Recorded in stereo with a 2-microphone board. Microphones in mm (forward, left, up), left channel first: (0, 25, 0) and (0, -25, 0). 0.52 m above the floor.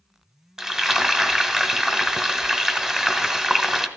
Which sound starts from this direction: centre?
Frying, at 0.6 s.